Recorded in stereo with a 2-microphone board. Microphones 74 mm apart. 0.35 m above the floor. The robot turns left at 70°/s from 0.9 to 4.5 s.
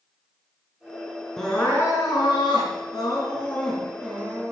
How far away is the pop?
I don't hear a pop.